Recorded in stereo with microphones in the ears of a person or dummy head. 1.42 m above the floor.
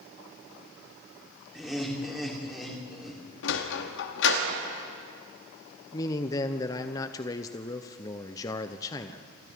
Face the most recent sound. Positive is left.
turn(degrees=20)  # may be behind; listen again after turning